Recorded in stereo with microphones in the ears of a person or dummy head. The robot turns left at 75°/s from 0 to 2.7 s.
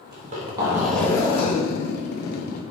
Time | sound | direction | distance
0.1 | a zipper | 120° right | 1.4 m